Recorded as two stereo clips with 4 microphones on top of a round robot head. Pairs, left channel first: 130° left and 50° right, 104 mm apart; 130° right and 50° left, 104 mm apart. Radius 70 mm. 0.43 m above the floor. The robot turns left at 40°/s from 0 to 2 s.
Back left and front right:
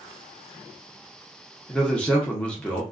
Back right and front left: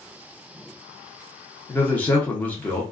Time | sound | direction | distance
1.7 | a man speaking | 155° right | 0.8 m